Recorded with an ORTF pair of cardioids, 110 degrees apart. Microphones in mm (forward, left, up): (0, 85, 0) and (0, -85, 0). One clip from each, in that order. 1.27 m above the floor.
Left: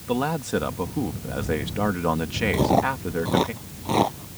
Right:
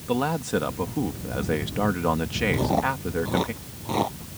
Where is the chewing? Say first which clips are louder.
Left 6 dB; 25° left.